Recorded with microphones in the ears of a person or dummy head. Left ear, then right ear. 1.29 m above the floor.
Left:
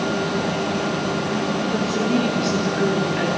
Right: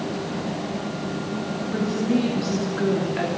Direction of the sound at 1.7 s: 15° left (ahead or behind).